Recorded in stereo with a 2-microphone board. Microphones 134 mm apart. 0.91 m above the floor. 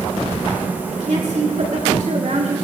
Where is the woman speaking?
70° right (ahead or behind), 5 m; by 2.6 s 80° right, 5 m.